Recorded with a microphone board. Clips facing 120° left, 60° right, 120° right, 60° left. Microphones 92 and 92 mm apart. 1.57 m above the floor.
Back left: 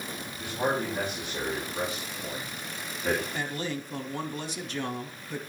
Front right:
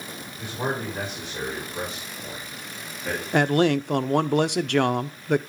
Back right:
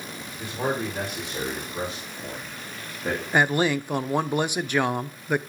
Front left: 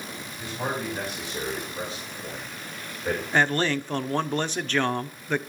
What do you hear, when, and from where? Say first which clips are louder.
0.3 s a man speaking: even, back right 3 dB; 150° right, 5 m; by 3.2 s 170° right, 2.5 m
3.3 s a man speaking: front right 13 dB, back right 2 dB; 40° right, 0.5 m